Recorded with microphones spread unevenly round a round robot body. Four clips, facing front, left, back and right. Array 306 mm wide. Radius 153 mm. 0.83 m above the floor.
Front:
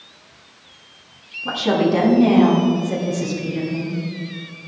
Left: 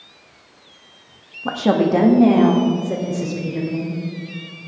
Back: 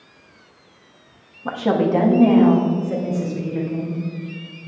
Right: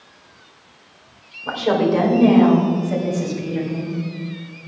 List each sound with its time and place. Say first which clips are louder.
1.4 s a woman speaking: left 1 dB, front 1 dB; 105° left, 1.3 m; by 4.0 s 100° left, 4.5 m